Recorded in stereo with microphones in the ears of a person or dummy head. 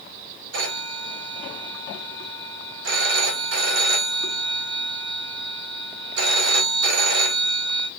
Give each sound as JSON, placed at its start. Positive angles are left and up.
{"t": 0.5, "sound": "a phone ringing", "side_deg": -70, "distance_m": 1.9}